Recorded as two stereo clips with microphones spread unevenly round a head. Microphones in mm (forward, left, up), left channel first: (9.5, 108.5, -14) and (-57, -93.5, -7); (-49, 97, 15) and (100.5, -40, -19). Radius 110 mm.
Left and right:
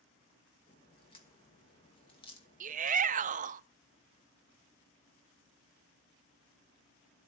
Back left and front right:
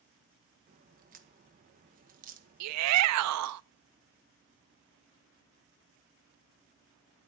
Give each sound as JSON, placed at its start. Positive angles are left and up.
{"t": 0.7, "sound": "a crack", "azimuth_deg": 5, "distance_m": 2.0}
{"t": 2.6, "sound": "a shout", "azimuth_deg": -55, "distance_m": 0.5}